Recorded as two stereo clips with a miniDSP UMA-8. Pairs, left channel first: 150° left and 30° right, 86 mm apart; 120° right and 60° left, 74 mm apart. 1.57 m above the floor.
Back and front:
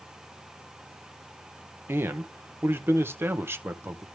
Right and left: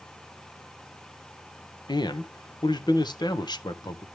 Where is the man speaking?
95° right, 1.1 m.